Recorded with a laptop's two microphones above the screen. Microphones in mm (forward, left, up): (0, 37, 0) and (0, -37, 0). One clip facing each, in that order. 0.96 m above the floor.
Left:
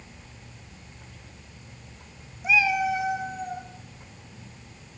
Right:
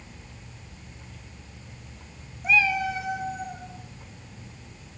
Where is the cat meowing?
5° left (ahead or behind), 0.9 m; by 3.6 s 25° left (ahead or behind), 2.5 m.